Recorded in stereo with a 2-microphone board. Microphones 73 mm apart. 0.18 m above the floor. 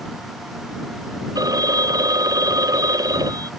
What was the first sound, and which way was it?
A phone ringing, 60° right (ahead or behind).